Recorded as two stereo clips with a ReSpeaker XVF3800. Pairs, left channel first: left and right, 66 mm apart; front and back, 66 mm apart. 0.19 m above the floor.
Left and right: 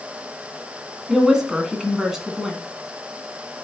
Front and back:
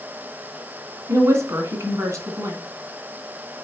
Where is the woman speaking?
170° right, 2 m.